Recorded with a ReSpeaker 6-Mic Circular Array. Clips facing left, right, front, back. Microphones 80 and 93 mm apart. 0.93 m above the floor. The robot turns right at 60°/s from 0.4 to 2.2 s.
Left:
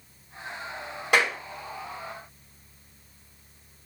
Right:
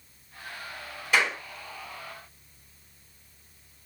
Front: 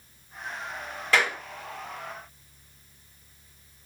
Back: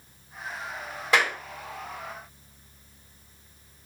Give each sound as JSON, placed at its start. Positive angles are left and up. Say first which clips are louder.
{"t": 1.1, "sound": "a clap", "louder": "left 2 dB, back 1 dB", "azimuth_deg": 110, "distance_m": 2.0}